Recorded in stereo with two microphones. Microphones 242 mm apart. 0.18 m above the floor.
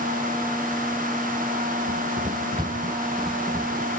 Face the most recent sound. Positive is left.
turn(degrees=5)  # may be behind; listen again after turning